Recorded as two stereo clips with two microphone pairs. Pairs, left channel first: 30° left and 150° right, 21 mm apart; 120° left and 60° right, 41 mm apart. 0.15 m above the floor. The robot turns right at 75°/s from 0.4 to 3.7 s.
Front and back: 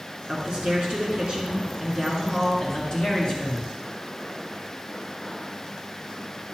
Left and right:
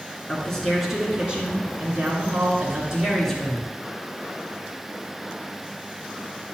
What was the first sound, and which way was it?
A man speaking, 175° left.